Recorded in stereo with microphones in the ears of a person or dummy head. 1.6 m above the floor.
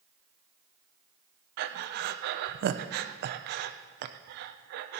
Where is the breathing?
60° right (ahead or behind), 0.6 m.